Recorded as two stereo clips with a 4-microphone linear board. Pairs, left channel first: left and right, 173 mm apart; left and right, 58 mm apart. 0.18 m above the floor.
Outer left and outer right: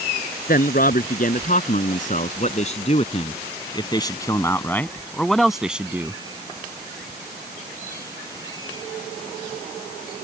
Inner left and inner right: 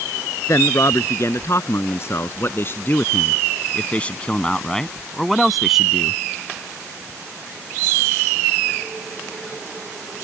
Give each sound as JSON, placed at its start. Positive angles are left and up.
{"t": 0.5, "sound": "a man speaking", "side_deg": 60}